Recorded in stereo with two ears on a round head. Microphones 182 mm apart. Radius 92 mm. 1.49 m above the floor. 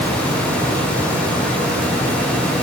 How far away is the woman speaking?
I don't hear a woman speaking.